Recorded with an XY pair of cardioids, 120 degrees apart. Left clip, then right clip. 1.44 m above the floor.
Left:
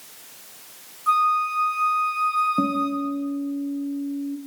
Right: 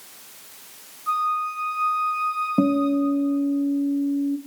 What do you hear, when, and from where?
1.1 s a flute: 40° left, 1.1 m
2.6 s a guitar: 35° right, 0.6 m